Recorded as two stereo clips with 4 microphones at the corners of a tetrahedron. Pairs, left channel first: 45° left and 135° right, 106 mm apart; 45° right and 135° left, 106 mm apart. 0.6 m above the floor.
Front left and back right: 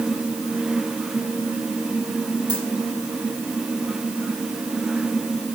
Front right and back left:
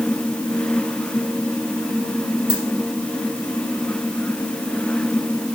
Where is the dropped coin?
85° right, 4.5 m.